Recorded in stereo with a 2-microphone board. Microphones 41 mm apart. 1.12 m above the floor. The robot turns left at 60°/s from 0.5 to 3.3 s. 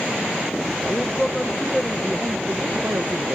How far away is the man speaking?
About 1.0 m.